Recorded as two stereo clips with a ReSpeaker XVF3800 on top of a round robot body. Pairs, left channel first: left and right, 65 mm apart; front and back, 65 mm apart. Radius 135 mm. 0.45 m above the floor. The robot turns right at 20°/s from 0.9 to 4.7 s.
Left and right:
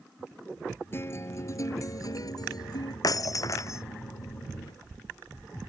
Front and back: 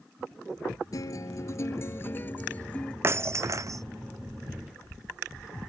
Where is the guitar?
35° left; by 2.9 s 75° left.